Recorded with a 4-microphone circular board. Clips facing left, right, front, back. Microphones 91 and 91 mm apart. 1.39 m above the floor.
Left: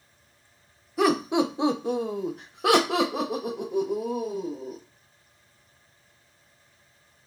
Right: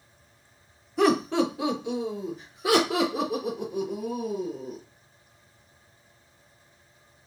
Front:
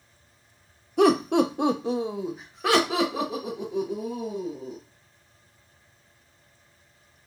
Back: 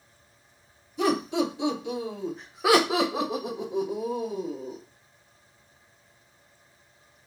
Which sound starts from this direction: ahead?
Laughter, at 1.0 s.